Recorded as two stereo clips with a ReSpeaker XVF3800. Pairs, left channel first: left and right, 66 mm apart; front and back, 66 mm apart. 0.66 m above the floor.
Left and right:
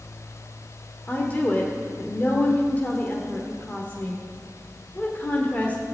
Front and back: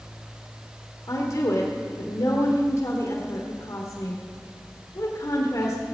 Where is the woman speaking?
30° left, 1.7 m.